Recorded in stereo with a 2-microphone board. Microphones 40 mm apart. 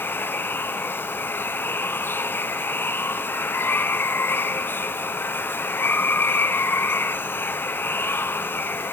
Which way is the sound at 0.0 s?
65° left (ahead or behind).